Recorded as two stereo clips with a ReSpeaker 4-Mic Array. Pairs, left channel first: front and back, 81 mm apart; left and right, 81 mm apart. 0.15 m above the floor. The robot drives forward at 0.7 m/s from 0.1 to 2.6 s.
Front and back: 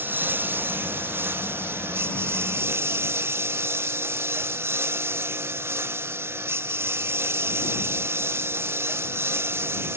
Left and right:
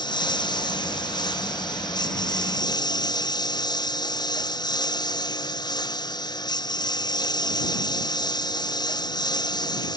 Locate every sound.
0.0 s a lawn mower: 115° left; by 10.0 s 120° left